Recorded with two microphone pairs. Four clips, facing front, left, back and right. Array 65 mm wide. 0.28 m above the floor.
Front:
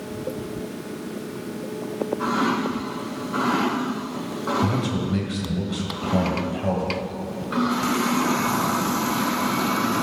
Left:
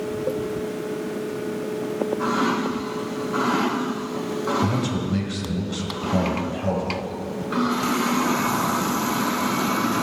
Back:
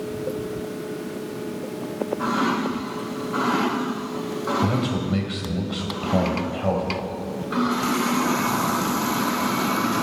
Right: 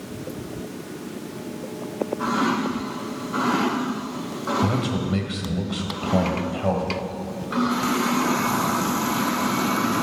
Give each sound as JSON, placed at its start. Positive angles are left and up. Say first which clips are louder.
{"t": 4.6, "sound": "a man speaking", "louder": "even, back 1 dB", "azimuth_deg": -125, "distance_m": 1.6}